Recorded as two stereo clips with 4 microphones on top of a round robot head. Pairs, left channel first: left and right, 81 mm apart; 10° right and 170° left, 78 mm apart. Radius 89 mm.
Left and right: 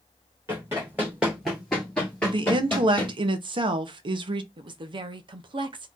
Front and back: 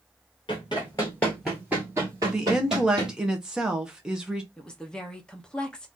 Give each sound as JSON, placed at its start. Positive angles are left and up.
{"t": 0.5, "sound": "running footsteps", "azimuth_deg": -25, "distance_m": 1.5}
{"t": 2.2, "sound": "a woman speaking", "azimuth_deg": -105, "distance_m": 0.8}
{"t": 4.6, "sound": "a woman speaking", "azimuth_deg": -85, "distance_m": 0.7}